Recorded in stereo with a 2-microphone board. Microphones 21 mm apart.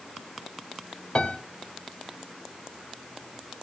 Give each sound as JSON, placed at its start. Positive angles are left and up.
{"t": 1.1, "sound": "a piano", "side_deg": 40, "distance_m": 2.0}